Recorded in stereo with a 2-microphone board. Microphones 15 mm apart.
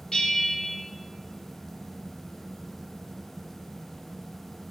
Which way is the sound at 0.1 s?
60° left (ahead or behind).